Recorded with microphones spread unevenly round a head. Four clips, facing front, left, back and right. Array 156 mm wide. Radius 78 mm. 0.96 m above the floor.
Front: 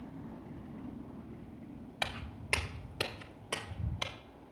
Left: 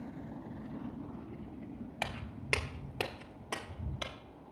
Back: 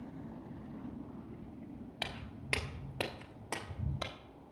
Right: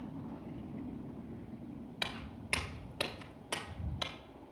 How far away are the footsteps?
About 1.0 m.